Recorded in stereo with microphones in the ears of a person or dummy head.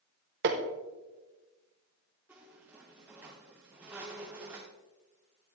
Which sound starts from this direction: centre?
A squeak, at 2.3 s.